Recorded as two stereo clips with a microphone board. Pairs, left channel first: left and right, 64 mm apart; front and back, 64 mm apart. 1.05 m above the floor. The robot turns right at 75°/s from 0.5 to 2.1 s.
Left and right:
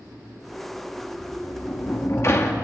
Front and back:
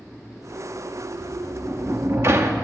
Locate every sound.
1.2 s a sliding door: 70° left, 2.0 m; by 2.6 s 135° left, 2.0 m